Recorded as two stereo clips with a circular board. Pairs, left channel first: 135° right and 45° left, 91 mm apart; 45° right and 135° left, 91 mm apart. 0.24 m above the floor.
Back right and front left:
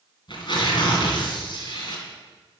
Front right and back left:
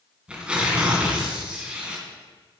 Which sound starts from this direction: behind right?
Tearing paper, at 0.3 s.